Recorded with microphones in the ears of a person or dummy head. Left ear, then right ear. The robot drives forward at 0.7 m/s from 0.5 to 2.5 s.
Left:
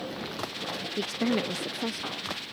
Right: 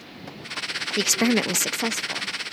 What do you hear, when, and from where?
1.0 s a woman speaking: 55° right (ahead or behind); by 2.4 s 30° right (ahead or behind)